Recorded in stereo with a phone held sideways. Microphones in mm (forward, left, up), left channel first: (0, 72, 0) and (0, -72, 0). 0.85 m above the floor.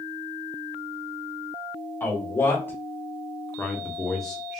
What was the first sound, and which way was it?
A man speaking, 15° left (ahead or behind).